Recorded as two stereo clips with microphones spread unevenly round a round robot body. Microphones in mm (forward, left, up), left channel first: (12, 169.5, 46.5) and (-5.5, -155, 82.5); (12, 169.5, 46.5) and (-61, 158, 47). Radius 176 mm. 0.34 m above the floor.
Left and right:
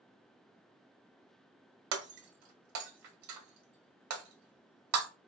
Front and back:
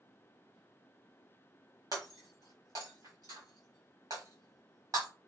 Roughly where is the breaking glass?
Behind right.